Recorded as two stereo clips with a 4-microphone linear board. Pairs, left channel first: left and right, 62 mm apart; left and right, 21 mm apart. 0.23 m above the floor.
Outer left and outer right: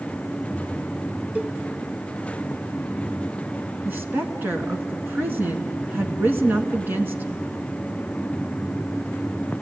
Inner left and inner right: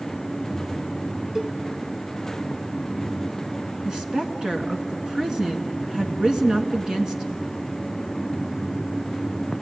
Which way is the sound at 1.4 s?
30° right (ahead or behind).